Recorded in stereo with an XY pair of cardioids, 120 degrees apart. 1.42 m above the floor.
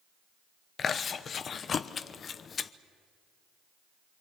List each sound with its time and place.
0.8 s chewing: 40° left, 0.9 m